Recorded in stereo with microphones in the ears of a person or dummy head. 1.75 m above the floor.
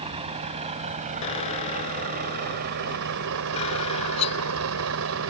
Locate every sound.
0.0 s a vehicle: 30° right (ahead or behind); by 5.3 s 70° right (ahead or behind)
1.2 s a squeak: 30° left (ahead or behind)
4.2 s cutlery clinking: 35° left (ahead or behind)